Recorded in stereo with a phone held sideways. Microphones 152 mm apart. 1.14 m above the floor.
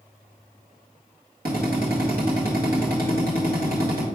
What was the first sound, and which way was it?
A drill, 80° right.